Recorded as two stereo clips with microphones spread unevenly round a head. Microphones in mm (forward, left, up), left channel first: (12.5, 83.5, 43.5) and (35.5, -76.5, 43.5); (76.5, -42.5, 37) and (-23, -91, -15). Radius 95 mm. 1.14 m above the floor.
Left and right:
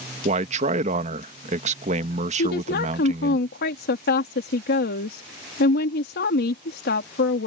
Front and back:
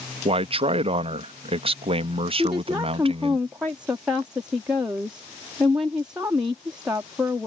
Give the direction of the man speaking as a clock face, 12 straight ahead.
4 o'clock.